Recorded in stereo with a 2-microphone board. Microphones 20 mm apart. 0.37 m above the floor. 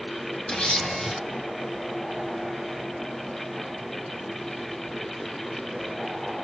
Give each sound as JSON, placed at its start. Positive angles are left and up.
{"t": 0.5, "sound": "a camera shutter", "side_deg": 70, "distance_m": 2.5}